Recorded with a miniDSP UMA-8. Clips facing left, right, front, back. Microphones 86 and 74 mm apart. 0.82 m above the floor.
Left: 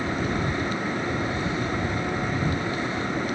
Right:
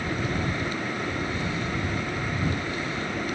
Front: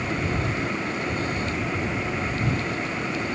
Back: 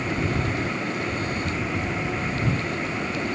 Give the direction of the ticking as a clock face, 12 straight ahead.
I don't hear ticking.